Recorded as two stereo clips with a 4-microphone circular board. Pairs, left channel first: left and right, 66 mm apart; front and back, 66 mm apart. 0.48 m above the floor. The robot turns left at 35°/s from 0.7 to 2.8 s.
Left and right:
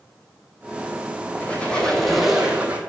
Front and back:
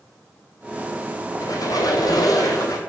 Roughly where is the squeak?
Ahead left.